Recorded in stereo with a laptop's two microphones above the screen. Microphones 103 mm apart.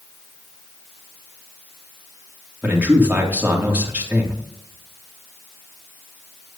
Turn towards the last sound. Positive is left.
turn(degrees=-15)  # may be behind; listen again after turning